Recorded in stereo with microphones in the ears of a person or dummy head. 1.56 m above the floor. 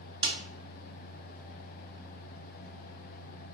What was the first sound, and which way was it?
A snare drum, 30° right (ahead or behind).